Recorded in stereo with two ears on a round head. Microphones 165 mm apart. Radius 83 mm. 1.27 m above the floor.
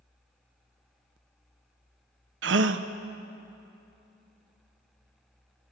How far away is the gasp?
About 0.5 m.